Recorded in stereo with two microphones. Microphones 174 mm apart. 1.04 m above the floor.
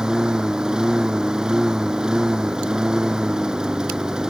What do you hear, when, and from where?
0.0 s a lawn mower: 5° right (ahead or behind)